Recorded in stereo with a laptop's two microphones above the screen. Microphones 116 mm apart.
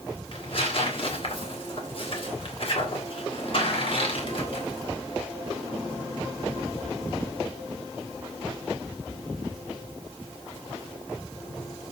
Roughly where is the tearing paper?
Left.